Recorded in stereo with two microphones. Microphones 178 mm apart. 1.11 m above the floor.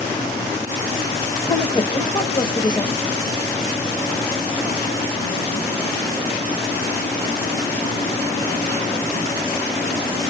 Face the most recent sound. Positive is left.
turn(degrees=25)  # may be behind; listen again after turning